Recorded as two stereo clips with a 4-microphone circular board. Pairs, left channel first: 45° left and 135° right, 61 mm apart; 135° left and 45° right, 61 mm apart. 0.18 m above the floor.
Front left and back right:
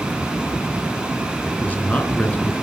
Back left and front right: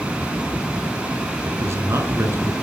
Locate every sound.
1.4 s a man speaking: 15° right, 2.5 m